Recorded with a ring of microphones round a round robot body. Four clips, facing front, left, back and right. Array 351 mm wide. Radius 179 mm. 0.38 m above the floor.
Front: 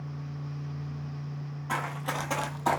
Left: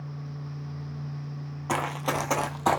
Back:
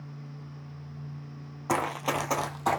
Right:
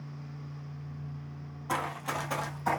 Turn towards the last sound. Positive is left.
turn(degrees=85)